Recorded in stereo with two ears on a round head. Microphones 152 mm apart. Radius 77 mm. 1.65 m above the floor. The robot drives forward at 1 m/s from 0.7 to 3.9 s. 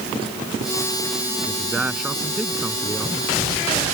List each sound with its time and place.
1.4 s a man speaking: 5° right (ahead or behind)